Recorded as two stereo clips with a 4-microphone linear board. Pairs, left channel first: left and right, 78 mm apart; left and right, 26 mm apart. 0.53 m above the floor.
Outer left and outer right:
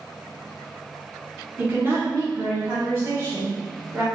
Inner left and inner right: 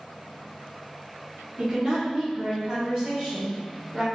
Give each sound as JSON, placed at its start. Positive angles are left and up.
{"t": 1.6, "sound": "a woman speaking", "side_deg": -20, "distance_m": 0.9}